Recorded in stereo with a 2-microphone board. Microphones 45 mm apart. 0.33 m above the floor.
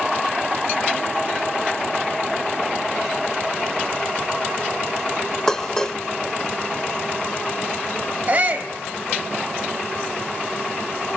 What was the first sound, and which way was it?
Dishes clattering, 15° left (ahead or behind).